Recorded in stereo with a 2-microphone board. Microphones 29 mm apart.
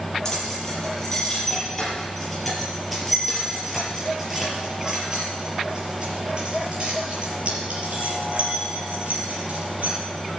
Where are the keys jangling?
15° left (ahead or behind), 5.5 m; by 10.0 s 55° right (ahead or behind), 6 m.